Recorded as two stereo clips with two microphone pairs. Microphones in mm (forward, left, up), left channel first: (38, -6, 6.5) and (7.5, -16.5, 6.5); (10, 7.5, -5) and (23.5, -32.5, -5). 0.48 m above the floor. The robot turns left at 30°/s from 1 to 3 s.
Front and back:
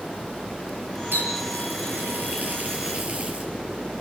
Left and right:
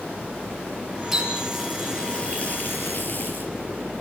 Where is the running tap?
155° right, 6 m; by 3.5 s 150° left, 6 m.